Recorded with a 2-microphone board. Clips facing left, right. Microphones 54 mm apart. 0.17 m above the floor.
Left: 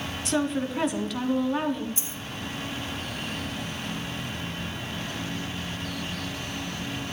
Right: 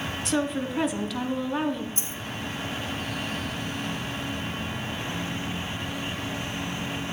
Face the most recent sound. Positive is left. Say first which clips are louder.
# right 2 dB
turn(degrees=-45)  # may be behind; listen again after turning